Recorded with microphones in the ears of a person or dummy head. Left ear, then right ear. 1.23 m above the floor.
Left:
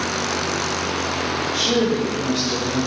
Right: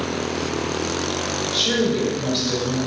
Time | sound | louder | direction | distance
1.5 | a woman speaking | even | 40° right (ahead or behind) | 3.5 m